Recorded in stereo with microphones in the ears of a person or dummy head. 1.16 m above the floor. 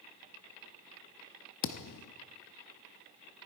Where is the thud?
65° left (ahead or behind), 0.9 m.